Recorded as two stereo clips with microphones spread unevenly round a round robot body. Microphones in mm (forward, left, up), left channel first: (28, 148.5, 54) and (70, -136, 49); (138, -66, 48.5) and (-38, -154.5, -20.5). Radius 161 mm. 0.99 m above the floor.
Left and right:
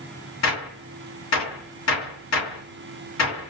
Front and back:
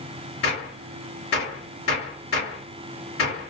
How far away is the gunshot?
About 2 m.